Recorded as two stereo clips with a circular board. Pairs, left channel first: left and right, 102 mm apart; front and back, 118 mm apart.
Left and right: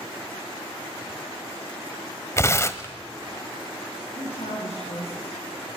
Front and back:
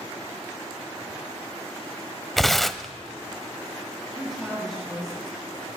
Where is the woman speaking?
90° left, 9.5 m.